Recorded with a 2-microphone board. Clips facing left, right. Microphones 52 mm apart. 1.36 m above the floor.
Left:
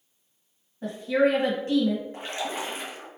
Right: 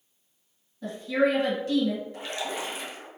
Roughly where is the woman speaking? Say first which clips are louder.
Left 2 dB; left.